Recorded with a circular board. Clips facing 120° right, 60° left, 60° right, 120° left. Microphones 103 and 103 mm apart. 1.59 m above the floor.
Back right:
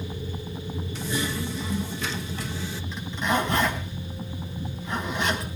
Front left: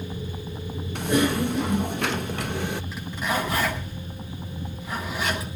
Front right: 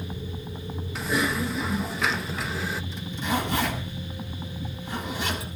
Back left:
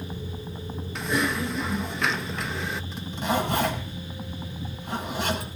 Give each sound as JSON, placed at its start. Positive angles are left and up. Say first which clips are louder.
{"t": 0.9, "sound": "typing on a keyboard", "louder": "front left 9 dB, even", "azimuth_deg": 30, "distance_m": 0.5}
{"t": 2.9, "sound": "a zipper", "louder": "back right 5 dB, back left 4 dB", "azimuth_deg": 145, "distance_m": 7.0}